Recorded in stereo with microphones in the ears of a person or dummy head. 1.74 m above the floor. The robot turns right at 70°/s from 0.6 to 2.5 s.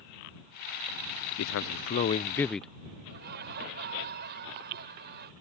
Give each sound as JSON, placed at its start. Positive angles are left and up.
{"t": 1.4, "sound": "a man speaking", "azimuth_deg": 100}
{"t": 3.1, "sound": "laughter", "side_deg": -55}